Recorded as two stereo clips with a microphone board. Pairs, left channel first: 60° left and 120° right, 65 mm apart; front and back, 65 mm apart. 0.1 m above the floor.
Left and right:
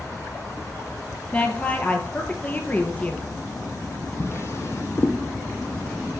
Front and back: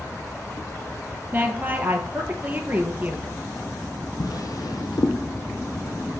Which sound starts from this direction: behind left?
A woman speaking, at 1.3 s.